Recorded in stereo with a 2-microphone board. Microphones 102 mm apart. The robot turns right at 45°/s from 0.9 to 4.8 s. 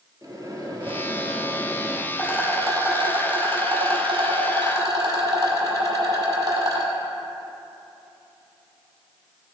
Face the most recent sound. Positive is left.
turn(degrees=-45)